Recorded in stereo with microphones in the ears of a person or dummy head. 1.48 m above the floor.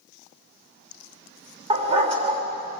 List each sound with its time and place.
1.7 s a dog barking: 35° right (ahead or behind), 2.5 m